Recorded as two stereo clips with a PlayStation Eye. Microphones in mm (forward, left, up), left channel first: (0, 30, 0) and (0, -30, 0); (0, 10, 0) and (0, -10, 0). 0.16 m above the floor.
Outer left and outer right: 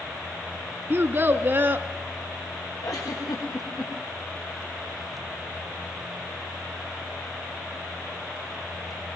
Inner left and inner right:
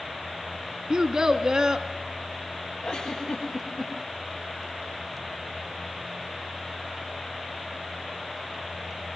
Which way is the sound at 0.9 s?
35° right (ahead or behind).